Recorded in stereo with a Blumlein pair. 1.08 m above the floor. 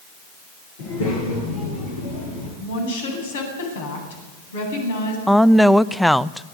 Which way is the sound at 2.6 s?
60° left.